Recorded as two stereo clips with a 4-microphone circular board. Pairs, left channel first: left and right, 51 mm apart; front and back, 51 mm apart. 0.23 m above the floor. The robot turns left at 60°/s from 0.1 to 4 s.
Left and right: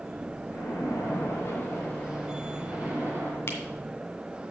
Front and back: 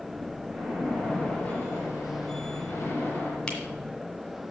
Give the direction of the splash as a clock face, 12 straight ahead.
8 o'clock.